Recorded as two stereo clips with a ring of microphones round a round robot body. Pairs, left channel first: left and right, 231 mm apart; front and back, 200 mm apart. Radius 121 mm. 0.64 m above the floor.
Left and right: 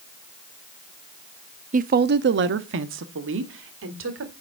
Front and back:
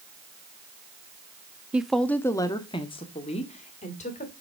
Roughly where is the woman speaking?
Right.